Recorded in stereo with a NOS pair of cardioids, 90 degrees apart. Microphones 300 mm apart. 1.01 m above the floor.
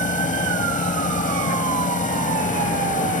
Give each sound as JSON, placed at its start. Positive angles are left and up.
{"t": 0.0, "sound": "a machine running", "azimuth_deg": 25}